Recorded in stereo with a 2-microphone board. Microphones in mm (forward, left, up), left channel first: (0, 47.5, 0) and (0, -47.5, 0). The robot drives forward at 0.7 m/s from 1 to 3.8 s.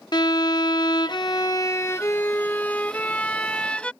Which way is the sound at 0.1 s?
50° left (ahead or behind).